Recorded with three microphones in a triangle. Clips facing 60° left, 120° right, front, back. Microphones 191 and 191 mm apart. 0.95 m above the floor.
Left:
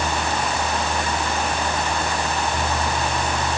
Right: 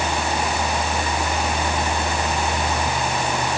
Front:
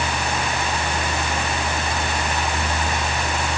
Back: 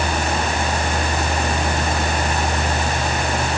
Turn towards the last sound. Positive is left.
No sound to turn to.